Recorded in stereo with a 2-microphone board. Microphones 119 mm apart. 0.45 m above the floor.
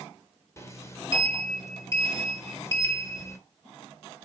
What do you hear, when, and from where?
0.6 s a sliding door: 25° left (ahead or behind), 1.6 m